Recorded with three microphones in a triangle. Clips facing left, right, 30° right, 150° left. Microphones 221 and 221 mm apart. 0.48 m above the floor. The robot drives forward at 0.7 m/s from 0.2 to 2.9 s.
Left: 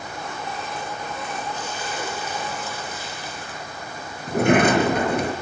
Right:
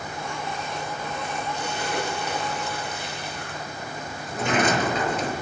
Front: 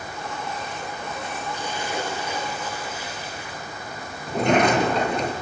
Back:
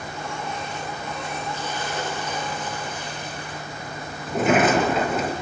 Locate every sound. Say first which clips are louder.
1.5 s a splash: right 2 dB, front 1 dB; 105° right, 7 m; by 3.6 s 110° right, 7.5 m
4.3 s a sliding door: left 7 dB, even; 65° left, 5.5 m